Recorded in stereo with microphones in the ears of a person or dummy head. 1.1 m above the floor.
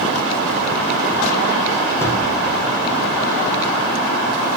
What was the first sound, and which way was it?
A gunshot, 15° left (ahead or behind).